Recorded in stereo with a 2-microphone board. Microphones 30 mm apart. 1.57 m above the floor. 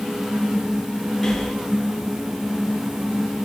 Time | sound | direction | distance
1.2 | breathing | 10° left (ahead or behind) | 3.5 m